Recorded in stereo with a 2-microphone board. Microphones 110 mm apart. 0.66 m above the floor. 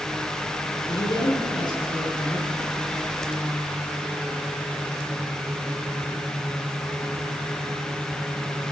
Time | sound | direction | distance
0.9 | a man speaking | 40° left (ahead or behind) | 8 m